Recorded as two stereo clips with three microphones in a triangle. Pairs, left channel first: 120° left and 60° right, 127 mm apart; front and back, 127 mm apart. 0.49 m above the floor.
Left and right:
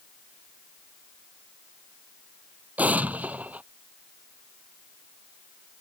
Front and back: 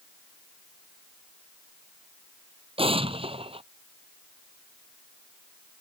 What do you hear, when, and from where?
2.8 s an explosion: 140° right